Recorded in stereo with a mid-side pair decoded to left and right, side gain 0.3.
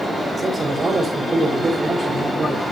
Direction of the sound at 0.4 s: 60° right.